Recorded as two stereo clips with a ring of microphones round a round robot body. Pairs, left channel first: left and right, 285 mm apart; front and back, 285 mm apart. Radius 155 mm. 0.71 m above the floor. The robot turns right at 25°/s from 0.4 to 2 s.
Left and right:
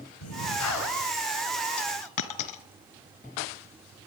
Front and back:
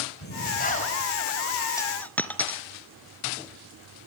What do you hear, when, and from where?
0.2 s breathing: 55° left, 4.5 m; by 1.1 s 70° left, 4.5 m
1.8 s a dropped coin: 80° left, 1.4 m; by 2.6 s 85° left, 1.4 m